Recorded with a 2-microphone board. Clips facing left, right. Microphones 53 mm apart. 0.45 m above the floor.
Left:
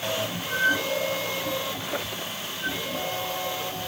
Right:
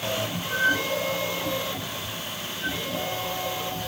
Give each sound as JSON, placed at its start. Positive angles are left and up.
{"t": 1.8, "sound": "a squeak", "side_deg": 80}